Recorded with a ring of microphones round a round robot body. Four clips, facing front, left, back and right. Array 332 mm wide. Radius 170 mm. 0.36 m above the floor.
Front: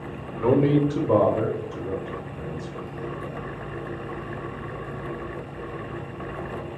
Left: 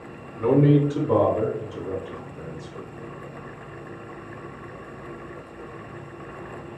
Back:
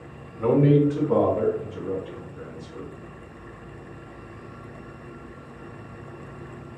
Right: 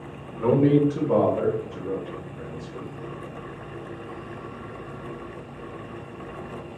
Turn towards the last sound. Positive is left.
turn(degrees=20)